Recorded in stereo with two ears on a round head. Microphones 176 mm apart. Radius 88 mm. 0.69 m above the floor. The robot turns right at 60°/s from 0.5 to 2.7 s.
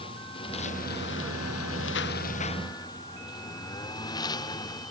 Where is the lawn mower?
25° left; by 4.9 s 160° left.